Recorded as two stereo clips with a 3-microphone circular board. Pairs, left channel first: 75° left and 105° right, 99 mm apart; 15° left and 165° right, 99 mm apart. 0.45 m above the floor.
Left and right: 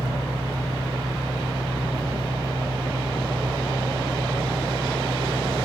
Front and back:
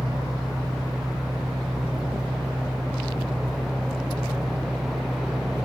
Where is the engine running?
Straight behind, 3.5 m.